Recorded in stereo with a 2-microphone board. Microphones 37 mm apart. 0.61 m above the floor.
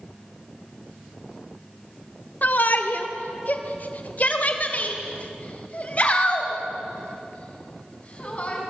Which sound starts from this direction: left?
A shout, at 2.4 s.